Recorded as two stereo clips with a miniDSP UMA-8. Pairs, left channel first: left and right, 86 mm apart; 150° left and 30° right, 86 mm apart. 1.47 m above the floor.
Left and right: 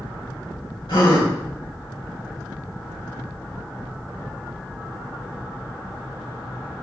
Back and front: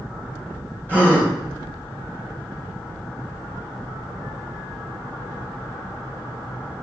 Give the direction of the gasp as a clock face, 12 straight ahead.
9 o'clock.